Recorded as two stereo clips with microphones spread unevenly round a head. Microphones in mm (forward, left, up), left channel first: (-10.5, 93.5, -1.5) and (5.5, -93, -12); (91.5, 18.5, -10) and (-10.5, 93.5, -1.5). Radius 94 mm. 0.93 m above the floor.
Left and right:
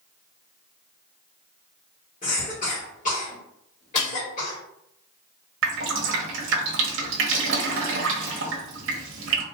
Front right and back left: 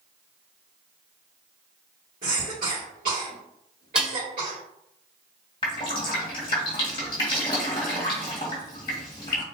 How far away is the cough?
About 2.5 m.